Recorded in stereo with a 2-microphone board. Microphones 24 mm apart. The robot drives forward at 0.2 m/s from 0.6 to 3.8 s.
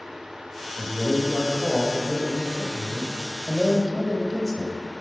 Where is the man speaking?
15° left (ahead or behind), 1.1 m.